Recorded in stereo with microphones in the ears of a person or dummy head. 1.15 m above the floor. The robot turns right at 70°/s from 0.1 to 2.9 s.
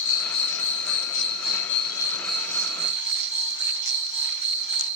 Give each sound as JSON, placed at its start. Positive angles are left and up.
{"t": 0.0, "sound": "an insect", "azimuth_deg": 50, "distance_m": 1.4}